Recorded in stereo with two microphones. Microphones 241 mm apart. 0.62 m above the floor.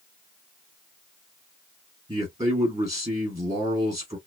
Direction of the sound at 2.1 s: 15° right (ahead or behind).